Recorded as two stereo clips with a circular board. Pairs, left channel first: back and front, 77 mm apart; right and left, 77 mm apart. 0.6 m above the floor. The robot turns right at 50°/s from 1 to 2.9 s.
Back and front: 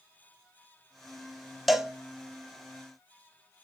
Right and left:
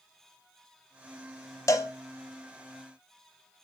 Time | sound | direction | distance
1.7 | a cowbell | 90° right | 0.5 m